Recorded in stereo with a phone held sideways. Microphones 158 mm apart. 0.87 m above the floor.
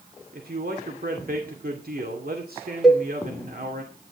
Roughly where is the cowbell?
Centre.